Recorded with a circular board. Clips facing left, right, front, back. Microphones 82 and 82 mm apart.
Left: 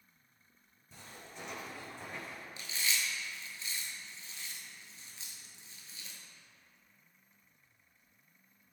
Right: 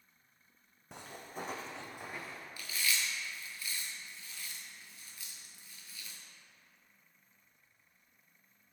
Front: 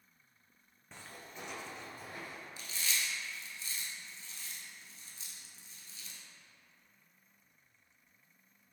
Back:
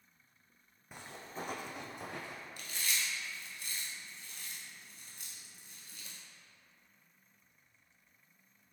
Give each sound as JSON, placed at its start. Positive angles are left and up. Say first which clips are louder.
{"t": 0.9, "sound": "footsteps", "louder": "right 5 dB, back 4 dB", "azimuth_deg": -100, "distance_m": 0.6}
{"t": 2.6, "sound": "chewing", "louder": "right 1 dB, even", "azimuth_deg": 155, "distance_m": 0.7}